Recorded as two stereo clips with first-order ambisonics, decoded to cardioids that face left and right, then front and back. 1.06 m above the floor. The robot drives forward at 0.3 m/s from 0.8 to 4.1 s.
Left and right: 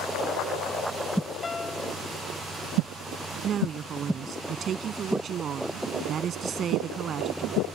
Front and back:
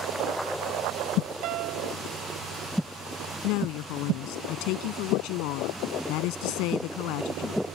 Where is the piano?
160° left; by 2.0 s 165° left.